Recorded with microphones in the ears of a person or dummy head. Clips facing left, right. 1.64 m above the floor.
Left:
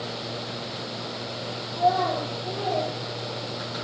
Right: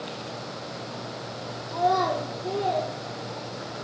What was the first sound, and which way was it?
A child speaking, 70° right (ahead or behind).